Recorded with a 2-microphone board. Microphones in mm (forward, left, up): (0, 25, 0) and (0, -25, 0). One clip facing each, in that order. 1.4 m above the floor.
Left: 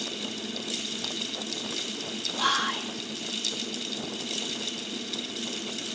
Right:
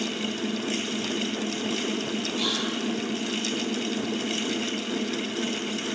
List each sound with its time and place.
2.4 s whispering: 55° left (ahead or behind), 2.5 m